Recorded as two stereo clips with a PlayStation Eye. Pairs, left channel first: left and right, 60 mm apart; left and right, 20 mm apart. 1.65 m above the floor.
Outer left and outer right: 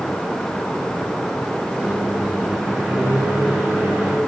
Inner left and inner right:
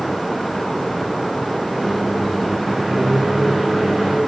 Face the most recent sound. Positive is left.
turn(degrees=-20)  # may be behind; listen again after turning